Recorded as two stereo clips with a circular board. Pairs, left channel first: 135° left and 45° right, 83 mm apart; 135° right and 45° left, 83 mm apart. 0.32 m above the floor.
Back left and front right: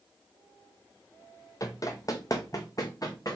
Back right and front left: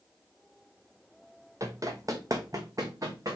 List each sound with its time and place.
1.6 s running footsteps: 95° left, 0.7 m; by 3.4 s 90° left, 1.6 m